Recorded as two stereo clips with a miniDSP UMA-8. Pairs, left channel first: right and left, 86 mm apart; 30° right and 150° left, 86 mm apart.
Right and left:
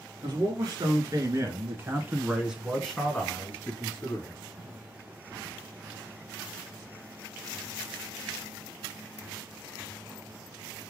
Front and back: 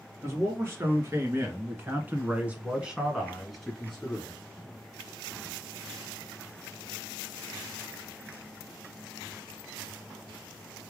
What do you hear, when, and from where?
0.2 s a man speaking: 100° left, 2.0 m; by 4.4 s 100° right, 1.5 m